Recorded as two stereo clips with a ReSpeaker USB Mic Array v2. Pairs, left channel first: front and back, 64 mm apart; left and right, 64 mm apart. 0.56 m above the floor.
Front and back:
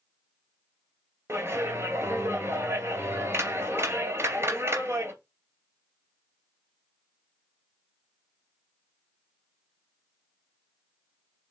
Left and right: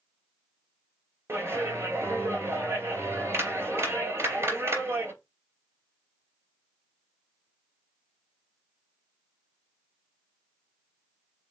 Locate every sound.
1.3 s a clap: 135° right, 3 m